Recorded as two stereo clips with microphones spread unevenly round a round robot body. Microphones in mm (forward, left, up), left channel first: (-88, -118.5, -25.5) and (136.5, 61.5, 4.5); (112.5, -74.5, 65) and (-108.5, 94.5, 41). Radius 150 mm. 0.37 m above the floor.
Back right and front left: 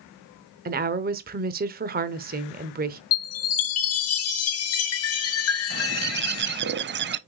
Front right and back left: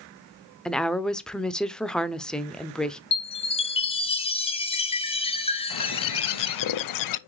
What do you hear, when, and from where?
0.7 s a woman speaking: 60° left, 0.8 m
3.1 s a chime: 110° right, 1.6 m
5.7 s a bird: 15° right, 0.6 m